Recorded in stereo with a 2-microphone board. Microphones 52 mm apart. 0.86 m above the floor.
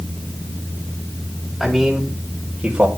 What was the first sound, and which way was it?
A man speaking, centre (ahead or behind).